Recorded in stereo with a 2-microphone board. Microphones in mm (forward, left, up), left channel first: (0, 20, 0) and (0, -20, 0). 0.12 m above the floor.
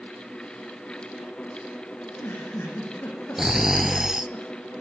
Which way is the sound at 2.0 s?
70° left (ahead or behind).